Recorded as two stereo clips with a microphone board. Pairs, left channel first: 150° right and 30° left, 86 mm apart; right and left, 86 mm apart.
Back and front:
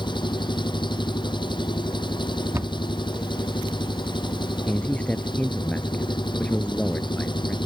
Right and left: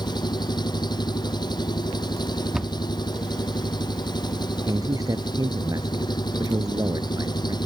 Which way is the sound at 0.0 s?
125° right.